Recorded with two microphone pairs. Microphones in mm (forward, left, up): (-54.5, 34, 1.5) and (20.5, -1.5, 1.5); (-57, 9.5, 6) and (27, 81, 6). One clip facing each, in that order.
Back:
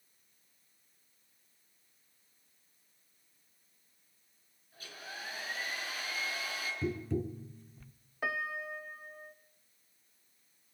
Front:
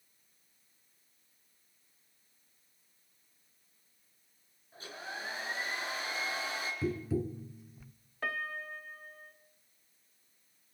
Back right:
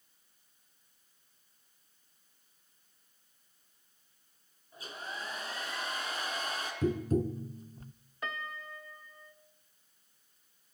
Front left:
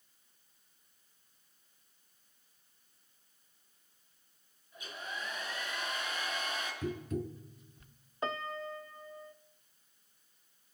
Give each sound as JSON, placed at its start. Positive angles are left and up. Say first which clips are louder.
{"t": 4.7, "sound": "a hair dryer", "louder": "front 4 dB, back right 1 dB", "azimuth_deg": -85, "distance_m": 5.5}
{"t": 6.8, "sound": "tapping", "louder": "front 1 dB, back right 9 dB", "azimuth_deg": -110, "distance_m": 0.6}
{"t": 8.2, "sound": "a piano", "louder": "back 1 dB, front left 4 dB", "azimuth_deg": 80, "distance_m": 0.8}